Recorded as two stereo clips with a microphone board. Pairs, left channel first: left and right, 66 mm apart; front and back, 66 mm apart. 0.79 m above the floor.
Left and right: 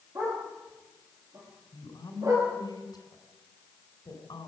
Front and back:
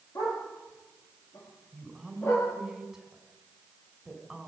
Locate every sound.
0.1 s a dog barking: 40° right, 9.5 m; by 2.5 s 50° right, 8 m
1.7 s a woman speaking: 95° left, 4 m